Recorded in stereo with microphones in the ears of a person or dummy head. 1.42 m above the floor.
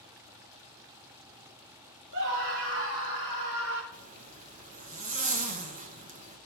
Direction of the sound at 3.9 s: 35° right (ahead or behind).